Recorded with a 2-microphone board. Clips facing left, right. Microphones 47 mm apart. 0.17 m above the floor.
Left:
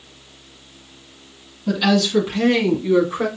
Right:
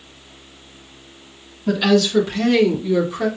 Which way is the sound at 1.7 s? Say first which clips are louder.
Right 2 dB; 5° right (ahead or behind).